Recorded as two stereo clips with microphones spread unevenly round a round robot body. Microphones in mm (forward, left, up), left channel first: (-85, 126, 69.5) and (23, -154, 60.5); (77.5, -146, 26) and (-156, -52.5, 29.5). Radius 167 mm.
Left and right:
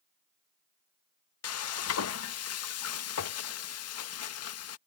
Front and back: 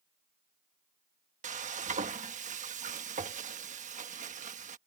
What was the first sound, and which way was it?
Frying, 105° left.